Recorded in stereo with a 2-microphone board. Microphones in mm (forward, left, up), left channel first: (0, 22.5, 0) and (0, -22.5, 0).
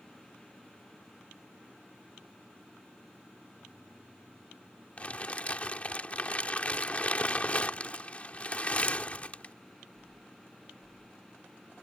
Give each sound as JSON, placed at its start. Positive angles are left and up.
{"t": 5.0, "sound": "crumpling", "side_deg": 30}